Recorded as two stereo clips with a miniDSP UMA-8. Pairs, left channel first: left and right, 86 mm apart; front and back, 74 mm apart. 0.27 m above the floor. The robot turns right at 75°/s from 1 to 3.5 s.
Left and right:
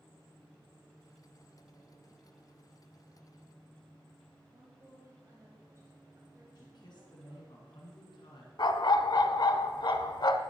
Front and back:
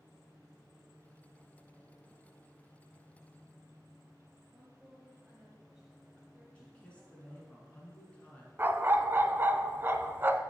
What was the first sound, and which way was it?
A woman speaking, 100° right.